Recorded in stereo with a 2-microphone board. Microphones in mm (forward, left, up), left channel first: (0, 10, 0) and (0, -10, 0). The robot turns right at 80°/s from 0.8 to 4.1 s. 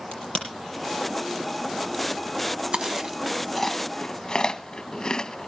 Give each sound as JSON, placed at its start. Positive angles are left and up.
{"t": 0.1, "sound": "a crack", "side_deg": 70, "distance_m": 6.0}
{"t": 2.7, "sound": "chewing", "side_deg": -65, "distance_m": 1.1}